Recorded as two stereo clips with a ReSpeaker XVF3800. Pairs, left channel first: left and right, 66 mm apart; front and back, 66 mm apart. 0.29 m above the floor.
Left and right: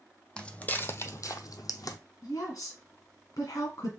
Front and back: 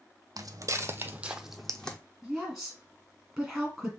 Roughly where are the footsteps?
Behind.